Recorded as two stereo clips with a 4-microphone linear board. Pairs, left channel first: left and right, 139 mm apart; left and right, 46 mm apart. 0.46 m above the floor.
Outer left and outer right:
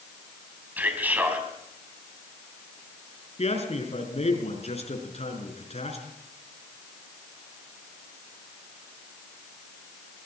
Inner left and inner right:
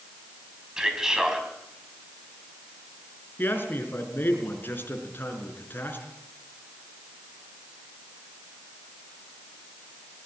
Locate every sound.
0.8 s a man speaking: 10° right (ahead or behind), 4 m
3.4 s a man speaking: 50° left (ahead or behind), 5 m